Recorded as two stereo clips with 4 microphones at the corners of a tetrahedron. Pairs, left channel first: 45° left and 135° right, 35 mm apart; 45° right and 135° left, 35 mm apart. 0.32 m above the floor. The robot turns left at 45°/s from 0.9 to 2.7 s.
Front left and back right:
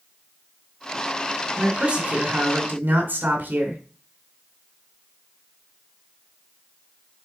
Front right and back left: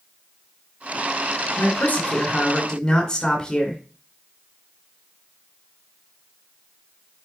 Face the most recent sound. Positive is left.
turn(degrees=-115)